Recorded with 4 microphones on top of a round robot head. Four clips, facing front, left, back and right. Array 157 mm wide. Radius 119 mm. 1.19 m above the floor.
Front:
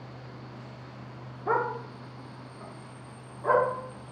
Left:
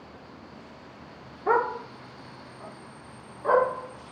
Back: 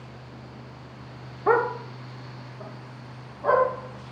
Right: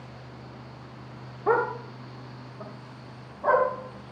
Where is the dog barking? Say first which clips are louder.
Even, back 6 dB; 160° right, 0.8 m; by 3.7 s 120° right, 3.5 m.